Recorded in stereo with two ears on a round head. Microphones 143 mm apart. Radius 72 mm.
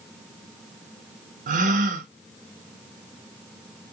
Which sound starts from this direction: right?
A gasp, at 1.5 s.